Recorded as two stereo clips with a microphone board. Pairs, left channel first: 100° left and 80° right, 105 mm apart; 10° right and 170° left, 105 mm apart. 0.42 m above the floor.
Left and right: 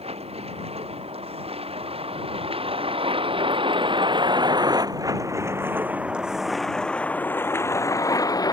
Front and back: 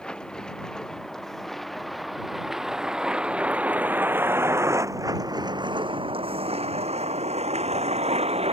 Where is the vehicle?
95° right; by 8.5 s 150° left.